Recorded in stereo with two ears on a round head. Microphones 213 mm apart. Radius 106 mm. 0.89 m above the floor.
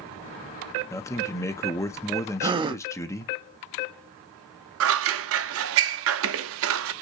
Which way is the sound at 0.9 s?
15° left (ahead or behind).